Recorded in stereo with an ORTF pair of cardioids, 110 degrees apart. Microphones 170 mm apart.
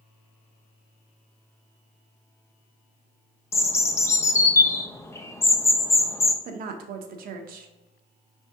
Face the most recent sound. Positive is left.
turn(degrees=-60)